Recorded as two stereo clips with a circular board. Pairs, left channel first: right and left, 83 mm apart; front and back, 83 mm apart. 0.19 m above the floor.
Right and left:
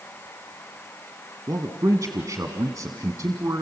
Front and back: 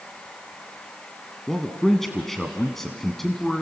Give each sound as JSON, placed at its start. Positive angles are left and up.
{"t": 1.5, "sound": "a man speaking", "azimuth_deg": 85, "distance_m": 1.3}